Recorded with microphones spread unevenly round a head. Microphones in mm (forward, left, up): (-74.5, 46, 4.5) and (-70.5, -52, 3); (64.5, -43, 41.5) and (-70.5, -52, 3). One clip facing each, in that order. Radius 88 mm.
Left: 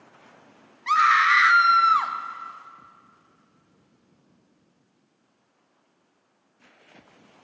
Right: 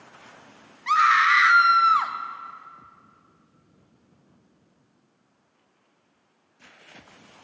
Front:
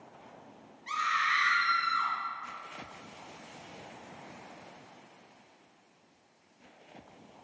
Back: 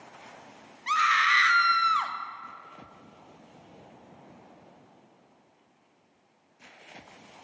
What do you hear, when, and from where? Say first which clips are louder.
0.9 s a scream: even, back 7 dB; straight behind, 0.6 m